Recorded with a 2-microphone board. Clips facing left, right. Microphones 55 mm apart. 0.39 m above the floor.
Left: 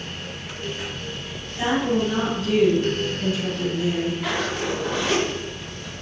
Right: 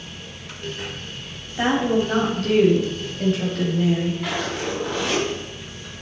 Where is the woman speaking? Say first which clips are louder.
Right 2 dB; 55° right (ahead or behind), 2.5 m.